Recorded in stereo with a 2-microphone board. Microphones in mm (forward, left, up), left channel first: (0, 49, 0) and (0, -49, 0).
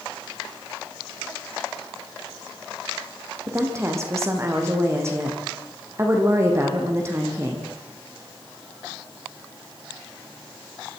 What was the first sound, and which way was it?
A woman speaking, 30° right (ahead or behind).